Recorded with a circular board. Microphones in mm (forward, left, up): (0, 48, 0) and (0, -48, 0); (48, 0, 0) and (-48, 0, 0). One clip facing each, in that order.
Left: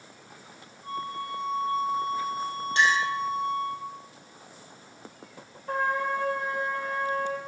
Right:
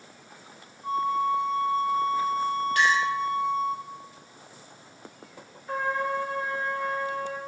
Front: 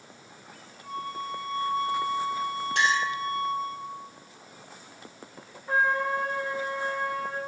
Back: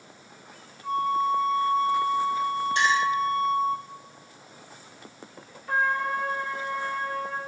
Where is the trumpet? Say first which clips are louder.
Left 1 dB, even; 70° left, 1.1 m.